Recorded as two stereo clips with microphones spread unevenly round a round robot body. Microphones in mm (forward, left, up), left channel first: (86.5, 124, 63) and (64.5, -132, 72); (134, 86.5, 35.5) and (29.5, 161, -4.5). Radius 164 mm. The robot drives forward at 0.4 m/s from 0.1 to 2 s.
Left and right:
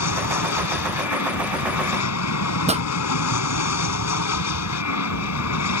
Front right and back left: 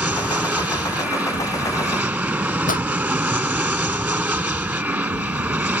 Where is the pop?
30° right.